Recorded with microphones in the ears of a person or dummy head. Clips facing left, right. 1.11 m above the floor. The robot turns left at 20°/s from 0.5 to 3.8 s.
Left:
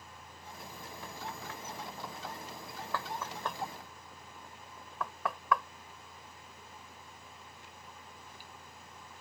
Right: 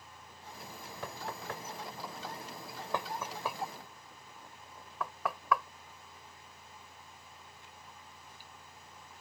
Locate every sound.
1.0 s knocking: 50° right (ahead or behind); by 5.6 s 5° left (ahead or behind)